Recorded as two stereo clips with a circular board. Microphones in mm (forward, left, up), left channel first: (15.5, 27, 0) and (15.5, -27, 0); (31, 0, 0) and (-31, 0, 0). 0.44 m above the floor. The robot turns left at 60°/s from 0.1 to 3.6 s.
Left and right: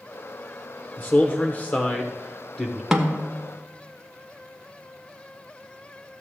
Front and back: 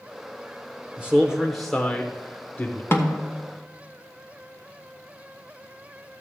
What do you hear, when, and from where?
1.0 s a man speaking: 125° left, 0.8 m; by 2.8 s 15° left, 0.8 m
2.9 s a snare drum: 10° right, 1.2 m; by 3.3 s 30° right, 1.2 m